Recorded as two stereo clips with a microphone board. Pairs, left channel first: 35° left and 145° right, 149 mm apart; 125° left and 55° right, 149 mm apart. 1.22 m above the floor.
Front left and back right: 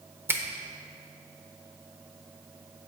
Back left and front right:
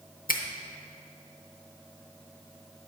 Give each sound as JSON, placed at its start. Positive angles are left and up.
{"t": 0.3, "sound": "a finger snap", "azimuth_deg": 140, "distance_m": 0.6}